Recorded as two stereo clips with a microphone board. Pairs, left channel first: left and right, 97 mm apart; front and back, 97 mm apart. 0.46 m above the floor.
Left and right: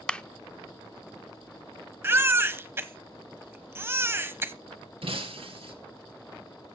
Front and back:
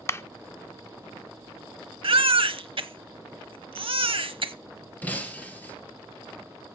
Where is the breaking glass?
75° right, 2.5 m.